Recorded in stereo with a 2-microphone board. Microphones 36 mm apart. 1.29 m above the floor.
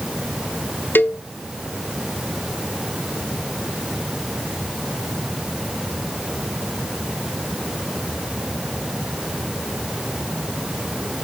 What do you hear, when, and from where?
0.9 s a cowbell: 60° left (ahead or behind), 0.6 m